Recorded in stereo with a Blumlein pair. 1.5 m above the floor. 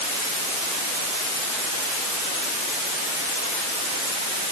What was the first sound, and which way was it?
Only background noise.